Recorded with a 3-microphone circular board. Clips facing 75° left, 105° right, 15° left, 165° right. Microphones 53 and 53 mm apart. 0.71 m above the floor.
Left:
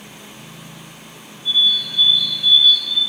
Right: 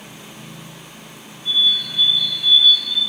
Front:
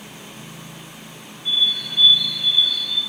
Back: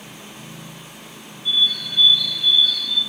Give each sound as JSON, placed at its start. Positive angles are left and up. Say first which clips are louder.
{"t": 1.4, "sound": "a bird", "louder": "left 1 dB, back 1 dB", "azimuth_deg": -55, "distance_m": 3.0}